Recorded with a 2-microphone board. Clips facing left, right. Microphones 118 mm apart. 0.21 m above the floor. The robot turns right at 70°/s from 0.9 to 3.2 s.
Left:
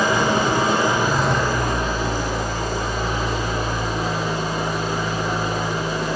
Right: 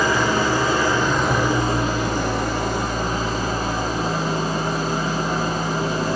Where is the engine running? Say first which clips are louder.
Left 1 dB; 160° left, 0.9 m; by 6.2 s 40° right, 0.9 m.